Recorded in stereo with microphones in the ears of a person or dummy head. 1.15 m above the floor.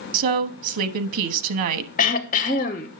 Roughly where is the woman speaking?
Right.